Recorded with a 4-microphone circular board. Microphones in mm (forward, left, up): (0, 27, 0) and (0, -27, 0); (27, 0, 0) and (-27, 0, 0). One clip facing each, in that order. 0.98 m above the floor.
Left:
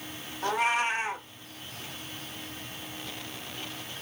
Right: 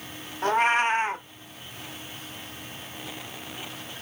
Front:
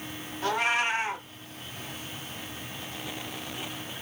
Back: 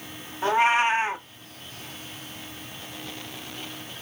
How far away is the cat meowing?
About 0.6 m.